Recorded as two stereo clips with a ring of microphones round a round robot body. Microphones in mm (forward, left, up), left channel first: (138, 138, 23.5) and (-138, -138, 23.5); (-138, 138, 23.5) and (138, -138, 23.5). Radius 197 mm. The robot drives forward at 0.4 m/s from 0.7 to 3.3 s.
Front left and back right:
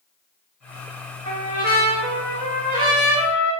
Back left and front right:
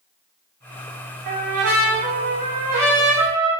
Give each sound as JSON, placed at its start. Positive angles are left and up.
{"t": 1.2, "sound": "a trumpet", "azimuth_deg": -85, "distance_m": 7.5}